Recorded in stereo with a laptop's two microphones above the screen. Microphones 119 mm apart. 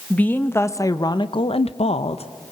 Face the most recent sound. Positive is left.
turn(degrees=55)  # may be behind; listen again after turning